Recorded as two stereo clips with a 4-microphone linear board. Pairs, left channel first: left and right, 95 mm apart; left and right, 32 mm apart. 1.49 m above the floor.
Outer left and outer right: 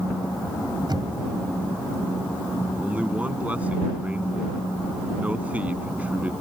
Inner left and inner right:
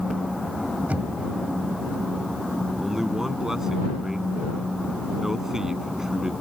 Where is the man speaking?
15° right (ahead or behind).